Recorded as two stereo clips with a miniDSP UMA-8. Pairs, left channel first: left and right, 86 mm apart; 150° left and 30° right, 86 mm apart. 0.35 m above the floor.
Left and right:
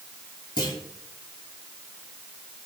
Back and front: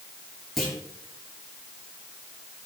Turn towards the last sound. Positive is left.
turn(degrees=65)